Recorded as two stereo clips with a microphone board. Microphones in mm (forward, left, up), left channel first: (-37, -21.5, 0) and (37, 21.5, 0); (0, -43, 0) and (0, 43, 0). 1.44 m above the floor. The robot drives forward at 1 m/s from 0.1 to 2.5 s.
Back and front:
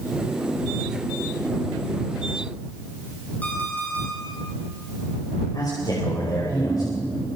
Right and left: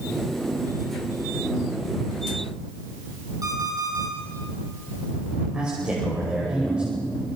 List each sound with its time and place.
3.4 s an alarm clock: 140° left, 7.5 m
5.5 s a man speaking: 170° left, 5.5 m